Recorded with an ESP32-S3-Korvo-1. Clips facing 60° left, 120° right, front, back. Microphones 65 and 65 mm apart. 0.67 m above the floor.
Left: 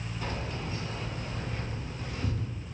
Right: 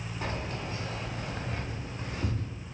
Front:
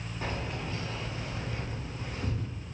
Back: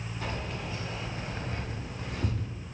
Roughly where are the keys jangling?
Right.